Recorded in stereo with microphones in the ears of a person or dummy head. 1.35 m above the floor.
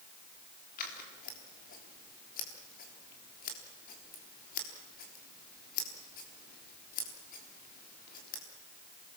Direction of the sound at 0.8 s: 50° left (ahead or behind).